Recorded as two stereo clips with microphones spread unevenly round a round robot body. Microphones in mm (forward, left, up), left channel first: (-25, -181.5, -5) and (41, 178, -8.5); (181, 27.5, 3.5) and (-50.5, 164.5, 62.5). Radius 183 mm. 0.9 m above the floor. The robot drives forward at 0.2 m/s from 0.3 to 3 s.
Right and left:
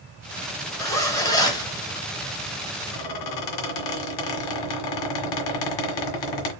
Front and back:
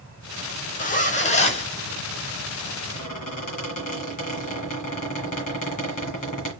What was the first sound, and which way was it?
A zipper, 20° right.